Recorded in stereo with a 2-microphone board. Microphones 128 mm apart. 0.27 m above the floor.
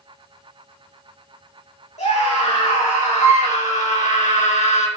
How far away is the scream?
About 6.5 m.